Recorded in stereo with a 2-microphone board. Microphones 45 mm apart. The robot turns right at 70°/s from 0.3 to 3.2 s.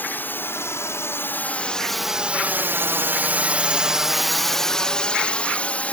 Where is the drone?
50° left (ahead or behind); by 5.9 s 35° left (ahead or behind).